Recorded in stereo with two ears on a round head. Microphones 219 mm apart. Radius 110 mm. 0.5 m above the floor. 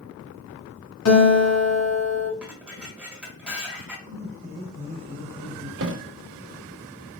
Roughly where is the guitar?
Left.